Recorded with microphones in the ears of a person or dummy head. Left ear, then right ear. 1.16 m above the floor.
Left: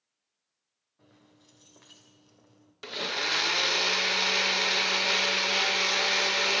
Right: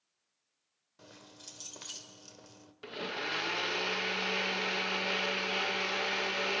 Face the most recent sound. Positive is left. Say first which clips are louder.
# left 7 dB
turn(degrees=30)  # may be behind; listen again after turning